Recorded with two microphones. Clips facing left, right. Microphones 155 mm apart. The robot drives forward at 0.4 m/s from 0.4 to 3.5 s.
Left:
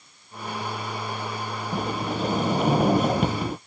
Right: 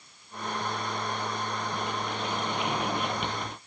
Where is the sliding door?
45° left (ahead or behind).